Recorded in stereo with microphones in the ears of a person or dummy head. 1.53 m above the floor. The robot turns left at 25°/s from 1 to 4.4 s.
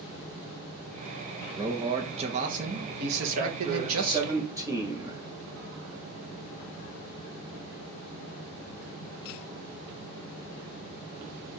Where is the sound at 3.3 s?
45° right (ahead or behind), 0.8 m; by 5.2 s 20° right (ahead or behind), 0.8 m.